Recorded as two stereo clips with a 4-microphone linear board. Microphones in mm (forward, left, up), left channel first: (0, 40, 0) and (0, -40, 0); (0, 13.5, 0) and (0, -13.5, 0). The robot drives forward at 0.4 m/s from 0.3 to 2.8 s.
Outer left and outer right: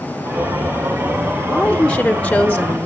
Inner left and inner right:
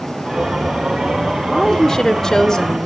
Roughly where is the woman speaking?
Centre.